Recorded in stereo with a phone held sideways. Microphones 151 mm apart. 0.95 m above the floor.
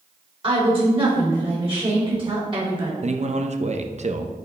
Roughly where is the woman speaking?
Right.